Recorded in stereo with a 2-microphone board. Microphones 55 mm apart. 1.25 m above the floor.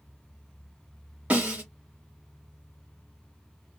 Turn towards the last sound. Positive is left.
turn(degrees=-20)  # may be behind; listen again after turning